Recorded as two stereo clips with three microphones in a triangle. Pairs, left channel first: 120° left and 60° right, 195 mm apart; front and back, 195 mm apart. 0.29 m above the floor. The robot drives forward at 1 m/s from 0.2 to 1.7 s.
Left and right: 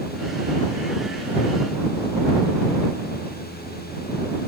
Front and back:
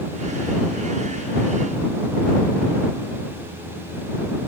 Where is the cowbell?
I don't hear a cowbell.